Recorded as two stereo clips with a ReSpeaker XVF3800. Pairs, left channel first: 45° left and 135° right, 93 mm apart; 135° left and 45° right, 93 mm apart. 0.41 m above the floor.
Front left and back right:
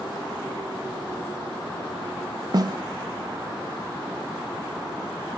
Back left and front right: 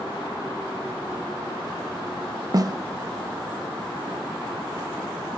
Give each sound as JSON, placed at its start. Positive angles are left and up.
{"t": 2.5, "sound": "a snare drum", "azimuth_deg": -90, "distance_m": 0.5}